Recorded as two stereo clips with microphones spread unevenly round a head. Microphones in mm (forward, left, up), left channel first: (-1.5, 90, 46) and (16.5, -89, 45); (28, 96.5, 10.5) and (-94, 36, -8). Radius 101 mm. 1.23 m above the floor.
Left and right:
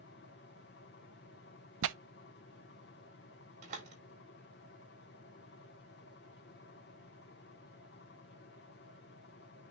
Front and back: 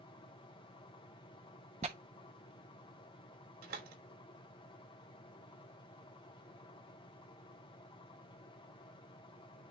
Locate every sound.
0.0 s a fan: 80° left, 1.5 m
1.8 s tearing paper: 90° right, 0.5 m
3.6 s a door slam: 135° right, 3.5 m